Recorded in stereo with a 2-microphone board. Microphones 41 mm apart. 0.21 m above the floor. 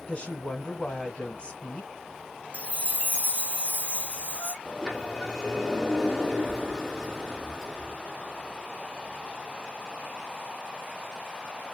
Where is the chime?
35° right (ahead or behind), 0.6 m.